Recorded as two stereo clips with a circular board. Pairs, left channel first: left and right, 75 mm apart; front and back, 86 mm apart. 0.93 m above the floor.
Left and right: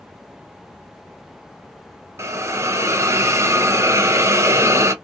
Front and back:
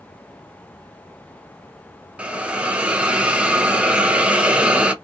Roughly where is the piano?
No piano in this recording.